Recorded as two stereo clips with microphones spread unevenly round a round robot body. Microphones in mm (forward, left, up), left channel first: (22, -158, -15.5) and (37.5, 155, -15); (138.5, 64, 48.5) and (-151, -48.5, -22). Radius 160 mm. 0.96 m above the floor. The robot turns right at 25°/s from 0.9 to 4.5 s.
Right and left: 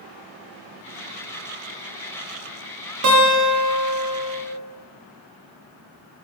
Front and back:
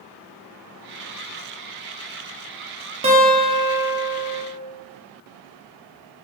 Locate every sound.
3.0 s a guitar: 130° left, 1.0 m; by 4.4 s 165° left, 1.0 m